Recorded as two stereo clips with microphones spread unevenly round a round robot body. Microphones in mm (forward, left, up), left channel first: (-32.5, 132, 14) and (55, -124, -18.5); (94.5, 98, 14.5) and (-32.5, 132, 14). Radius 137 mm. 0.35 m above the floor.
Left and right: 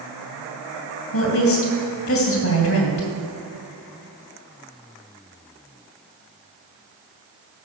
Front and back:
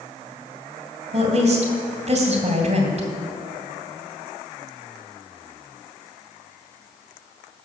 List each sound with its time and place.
1.1 s a woman speaking: 145° left, 2.5 m